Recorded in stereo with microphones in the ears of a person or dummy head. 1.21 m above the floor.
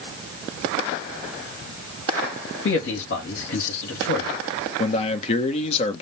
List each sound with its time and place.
2.6 s a man speaking: 70° left (ahead or behind), 1.9 m
4.8 s a man speaking: 40° left (ahead or behind), 0.9 m